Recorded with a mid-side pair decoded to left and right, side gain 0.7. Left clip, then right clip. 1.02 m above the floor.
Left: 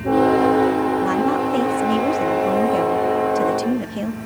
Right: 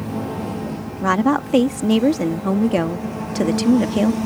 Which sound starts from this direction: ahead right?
A woman speaking, at 1.0 s.